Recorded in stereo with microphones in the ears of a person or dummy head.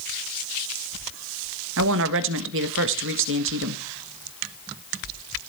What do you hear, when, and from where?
1.8 s a woman speaking: 70° right (ahead or behind), 1.6 m